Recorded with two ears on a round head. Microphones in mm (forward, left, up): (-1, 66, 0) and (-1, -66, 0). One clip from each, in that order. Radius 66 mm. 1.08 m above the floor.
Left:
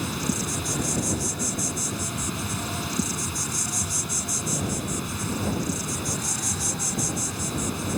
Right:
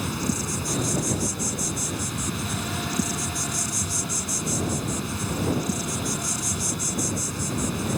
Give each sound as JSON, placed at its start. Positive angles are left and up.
{"t": 0.0, "sound": "an insect", "side_deg": 10}